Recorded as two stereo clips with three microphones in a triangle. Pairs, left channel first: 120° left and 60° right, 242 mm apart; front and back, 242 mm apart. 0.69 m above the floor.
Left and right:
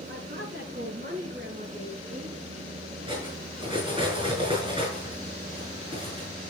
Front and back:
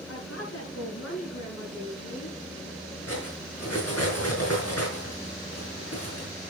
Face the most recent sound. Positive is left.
turn(degrees=10)